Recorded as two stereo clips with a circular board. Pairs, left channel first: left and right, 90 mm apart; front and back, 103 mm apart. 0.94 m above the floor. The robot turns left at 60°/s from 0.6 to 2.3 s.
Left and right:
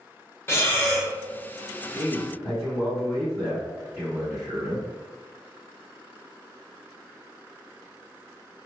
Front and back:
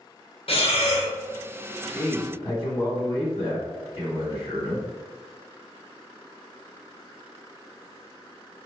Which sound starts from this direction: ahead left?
Breathing, at 0.5 s.